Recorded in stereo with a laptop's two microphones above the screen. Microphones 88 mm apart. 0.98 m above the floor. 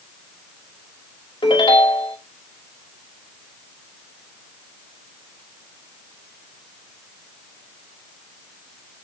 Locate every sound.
1.4 s a ringtone: 80° left, 2.0 m